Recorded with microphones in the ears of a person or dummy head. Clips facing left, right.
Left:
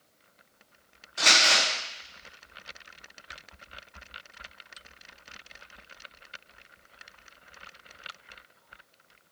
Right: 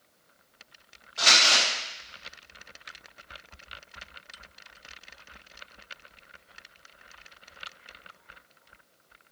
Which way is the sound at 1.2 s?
30° left (ahead or behind).